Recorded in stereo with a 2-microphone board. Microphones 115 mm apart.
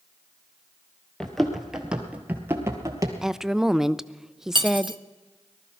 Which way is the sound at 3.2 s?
5° right (ahead or behind).